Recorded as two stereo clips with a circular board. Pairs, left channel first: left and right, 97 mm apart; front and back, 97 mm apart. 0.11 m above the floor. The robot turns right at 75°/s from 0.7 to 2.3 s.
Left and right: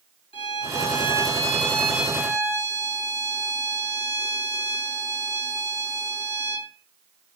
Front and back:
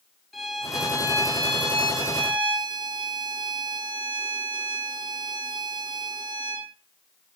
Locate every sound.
0.3 s a violin: 90° left, 1.6 m; by 6.7 s 150° right, 1.6 m